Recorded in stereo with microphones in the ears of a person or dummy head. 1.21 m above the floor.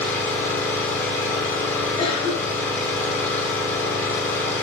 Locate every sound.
0.0 s an engine running: 10° left (ahead or behind), 3 m
2.0 s a cough: 30° left (ahead or behind), 3 m